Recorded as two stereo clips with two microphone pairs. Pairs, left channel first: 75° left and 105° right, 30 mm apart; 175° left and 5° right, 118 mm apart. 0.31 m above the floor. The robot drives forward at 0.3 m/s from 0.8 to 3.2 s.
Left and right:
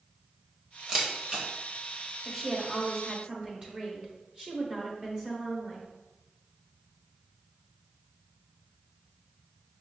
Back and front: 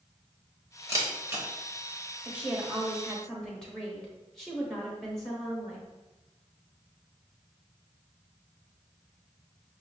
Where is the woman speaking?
60° right, 0.9 m; by 5.9 s 110° right, 0.9 m.